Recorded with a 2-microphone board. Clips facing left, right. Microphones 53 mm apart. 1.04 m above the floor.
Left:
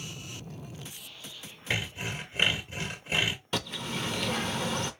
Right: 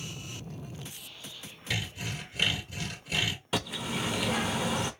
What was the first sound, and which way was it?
Sawing, 30° left (ahead or behind).